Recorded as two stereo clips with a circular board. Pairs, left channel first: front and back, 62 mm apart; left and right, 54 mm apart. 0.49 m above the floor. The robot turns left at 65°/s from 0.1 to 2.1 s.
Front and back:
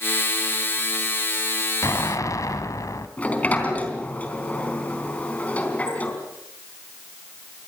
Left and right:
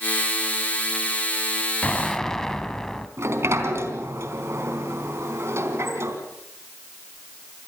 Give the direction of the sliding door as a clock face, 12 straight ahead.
2 o'clock.